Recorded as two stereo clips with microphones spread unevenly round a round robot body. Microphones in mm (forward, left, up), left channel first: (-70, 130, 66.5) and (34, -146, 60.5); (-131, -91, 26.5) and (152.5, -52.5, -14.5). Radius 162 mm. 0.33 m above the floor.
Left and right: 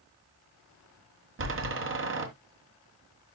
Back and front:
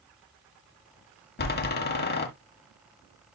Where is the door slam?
115° right, 1.7 m.